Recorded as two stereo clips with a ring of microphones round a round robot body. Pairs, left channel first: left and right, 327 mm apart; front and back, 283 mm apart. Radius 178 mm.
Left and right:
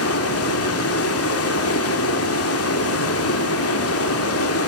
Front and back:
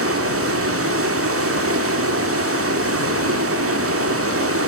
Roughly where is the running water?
Behind left.